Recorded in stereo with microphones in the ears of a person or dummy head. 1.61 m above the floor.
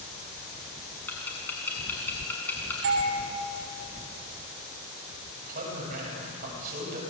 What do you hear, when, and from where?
1.1 s ticking: 10° left (ahead or behind), 6.5 m
2.8 s a doorbell: 65° right (ahead or behind), 5 m
5.4 s a man speaking: 50° right (ahead or behind), 8.5 m